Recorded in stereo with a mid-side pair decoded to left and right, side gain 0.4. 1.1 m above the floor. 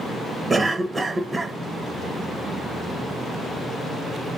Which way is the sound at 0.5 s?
35° right.